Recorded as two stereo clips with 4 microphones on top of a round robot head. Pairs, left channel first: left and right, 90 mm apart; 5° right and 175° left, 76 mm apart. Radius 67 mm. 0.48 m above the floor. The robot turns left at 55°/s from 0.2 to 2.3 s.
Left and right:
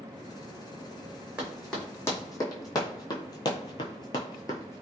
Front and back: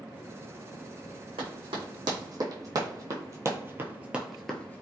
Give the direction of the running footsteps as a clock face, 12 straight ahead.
6 o'clock.